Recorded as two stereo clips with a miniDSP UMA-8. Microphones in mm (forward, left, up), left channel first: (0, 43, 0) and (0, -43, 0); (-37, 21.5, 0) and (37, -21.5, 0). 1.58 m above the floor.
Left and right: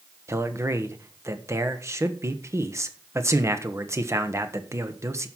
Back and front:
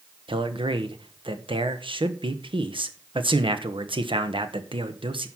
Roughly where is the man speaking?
Ahead right.